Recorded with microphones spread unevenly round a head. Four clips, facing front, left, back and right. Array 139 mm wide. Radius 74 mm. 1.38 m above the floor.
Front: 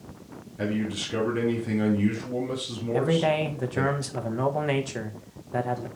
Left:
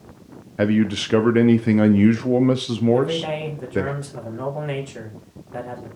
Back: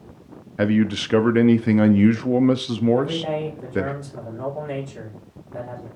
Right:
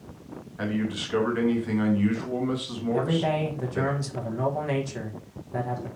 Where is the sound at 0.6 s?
120° left, 0.5 m.